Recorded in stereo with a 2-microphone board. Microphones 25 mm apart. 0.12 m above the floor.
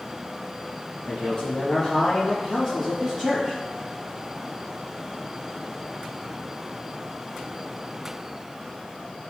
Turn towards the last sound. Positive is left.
turn(degrees=10)  # may be behind; listen again after turning